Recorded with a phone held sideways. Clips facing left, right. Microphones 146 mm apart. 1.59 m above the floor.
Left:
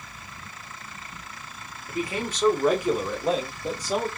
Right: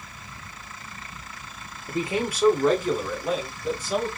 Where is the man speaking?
35° right (ahead or behind), 0.7 m; by 4.1 s 40° left (ahead or behind), 1.5 m.